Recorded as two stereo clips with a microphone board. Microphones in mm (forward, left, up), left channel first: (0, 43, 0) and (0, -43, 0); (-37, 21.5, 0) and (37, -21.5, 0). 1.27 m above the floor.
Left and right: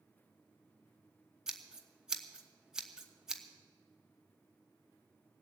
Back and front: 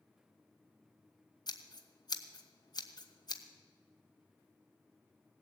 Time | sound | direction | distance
1.5 | scissors | 175° right | 1.2 m